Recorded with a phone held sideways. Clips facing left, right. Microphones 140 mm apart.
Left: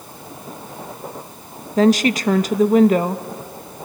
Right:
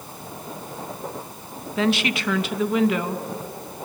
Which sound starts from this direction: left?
A woman speaking, at 1.8 s.